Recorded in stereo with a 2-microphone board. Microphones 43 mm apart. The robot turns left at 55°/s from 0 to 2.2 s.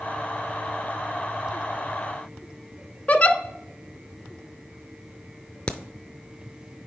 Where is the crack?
25° left (ahead or behind), 0.6 m.